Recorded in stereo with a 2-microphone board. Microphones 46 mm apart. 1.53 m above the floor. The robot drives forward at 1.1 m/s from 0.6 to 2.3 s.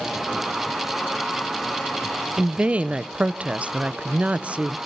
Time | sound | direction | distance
2.4 | a woman speaking | 30° right (ahead or behind) | 0.7 m